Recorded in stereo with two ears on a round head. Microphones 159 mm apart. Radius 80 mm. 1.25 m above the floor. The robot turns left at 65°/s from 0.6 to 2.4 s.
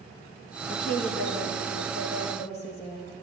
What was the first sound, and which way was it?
A woman speaking, 150° left.